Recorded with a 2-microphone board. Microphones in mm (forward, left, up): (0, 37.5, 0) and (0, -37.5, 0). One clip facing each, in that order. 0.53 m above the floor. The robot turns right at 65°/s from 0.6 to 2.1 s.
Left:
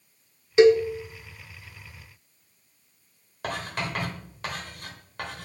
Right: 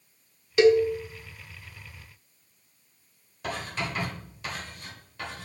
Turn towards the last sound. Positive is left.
turn(degrees=65)  # may be behind; listen again after turning